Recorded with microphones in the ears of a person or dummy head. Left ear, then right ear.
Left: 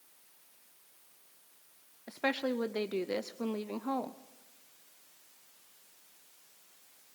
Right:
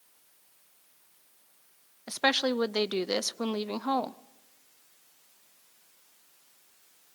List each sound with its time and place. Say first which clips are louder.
2.1 s a woman speaking: right 7 dB; 40° right (ahead or behind), 0.6 m